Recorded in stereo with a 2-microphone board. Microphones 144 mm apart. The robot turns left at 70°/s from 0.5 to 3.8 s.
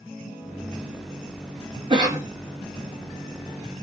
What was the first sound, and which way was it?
A cough, 35° right (ahead or behind).